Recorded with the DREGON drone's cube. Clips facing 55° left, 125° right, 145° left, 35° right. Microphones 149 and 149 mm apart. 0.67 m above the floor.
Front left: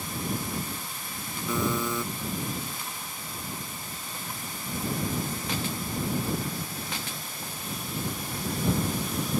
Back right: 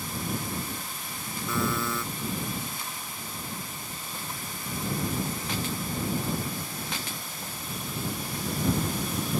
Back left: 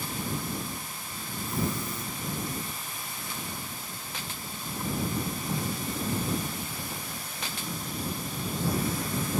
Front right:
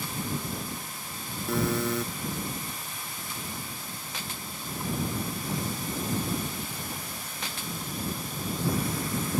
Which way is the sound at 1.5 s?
20° right.